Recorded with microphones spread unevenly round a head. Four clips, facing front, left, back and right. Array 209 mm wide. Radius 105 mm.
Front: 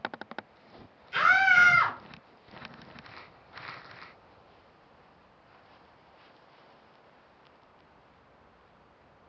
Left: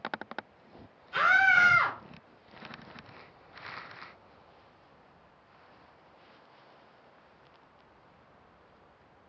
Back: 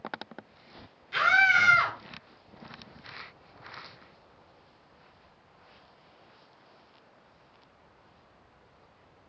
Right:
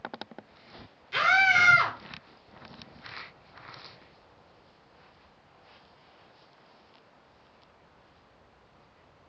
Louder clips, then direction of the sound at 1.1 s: Even, front 1 dB; 90° right.